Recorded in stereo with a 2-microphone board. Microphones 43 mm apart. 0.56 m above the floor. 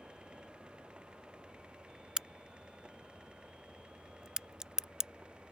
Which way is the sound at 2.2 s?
15° right (ahead or behind).